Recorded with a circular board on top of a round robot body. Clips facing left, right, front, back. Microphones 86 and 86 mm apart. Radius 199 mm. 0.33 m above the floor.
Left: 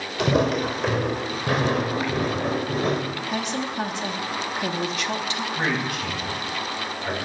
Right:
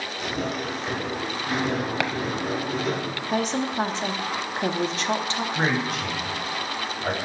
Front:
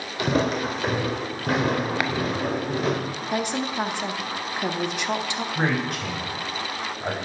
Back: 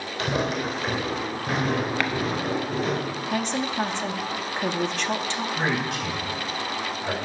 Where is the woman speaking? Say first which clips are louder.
Right 4 dB, front 1 dB; 65° right, 1.1 m.